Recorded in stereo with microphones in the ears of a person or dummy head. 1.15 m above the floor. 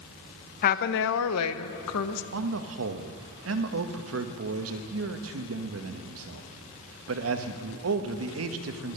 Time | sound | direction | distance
0.6 | a woman speaking | 40° left (ahead or behind) | 0.7 m
2.3 | a man speaking | 85° right | 1.0 m